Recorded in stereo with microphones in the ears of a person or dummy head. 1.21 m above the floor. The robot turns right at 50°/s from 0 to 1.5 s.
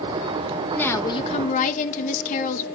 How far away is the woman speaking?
About 1.4 m.